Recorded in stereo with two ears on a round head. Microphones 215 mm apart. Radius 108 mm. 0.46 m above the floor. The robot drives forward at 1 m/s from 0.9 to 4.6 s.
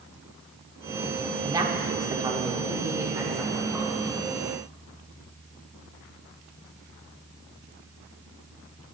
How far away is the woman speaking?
About 1.5 m.